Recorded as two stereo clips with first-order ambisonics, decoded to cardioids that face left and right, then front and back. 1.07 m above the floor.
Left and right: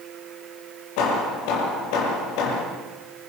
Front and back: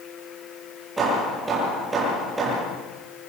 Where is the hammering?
105° left, 8 m.